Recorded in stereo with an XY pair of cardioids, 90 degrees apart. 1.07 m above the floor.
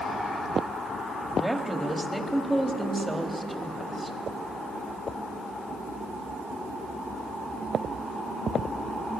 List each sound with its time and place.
1.4 s a woman speaking: 10° right, 1.7 m